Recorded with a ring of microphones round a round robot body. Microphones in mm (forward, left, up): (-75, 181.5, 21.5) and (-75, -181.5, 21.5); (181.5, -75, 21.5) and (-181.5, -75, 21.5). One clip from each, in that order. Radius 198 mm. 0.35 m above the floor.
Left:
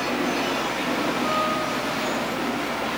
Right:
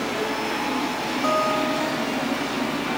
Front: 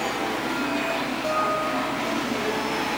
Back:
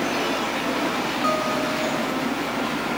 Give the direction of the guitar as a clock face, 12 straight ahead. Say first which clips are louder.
Right 2 dB, even; 4 o'clock.